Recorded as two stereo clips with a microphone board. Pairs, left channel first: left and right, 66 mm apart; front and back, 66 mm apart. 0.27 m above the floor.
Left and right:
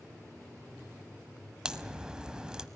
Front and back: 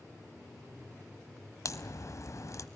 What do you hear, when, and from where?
1.6 s a crack: 15° right, 1.1 m